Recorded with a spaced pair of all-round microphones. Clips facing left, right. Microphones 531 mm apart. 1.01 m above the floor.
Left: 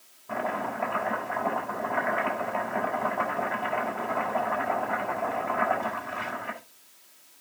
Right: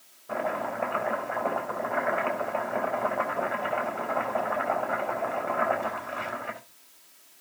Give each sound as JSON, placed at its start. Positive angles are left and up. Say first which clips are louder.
{"t": 0.3, "sound": "chopping", "louder": "right 1 dB", "side_deg": 20, "distance_m": 4.0}